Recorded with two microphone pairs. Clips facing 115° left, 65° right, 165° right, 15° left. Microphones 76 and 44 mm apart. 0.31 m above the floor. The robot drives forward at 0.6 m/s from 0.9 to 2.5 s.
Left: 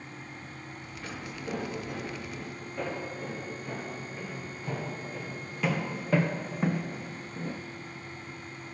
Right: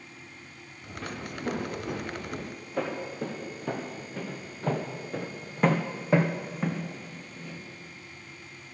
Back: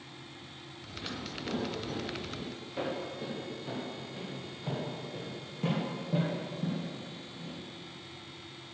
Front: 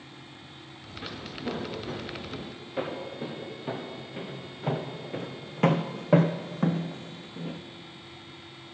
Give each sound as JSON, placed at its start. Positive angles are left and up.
{"t": 1.0, "sound": "footsteps", "azimuth_deg": -50, "distance_m": 4.0}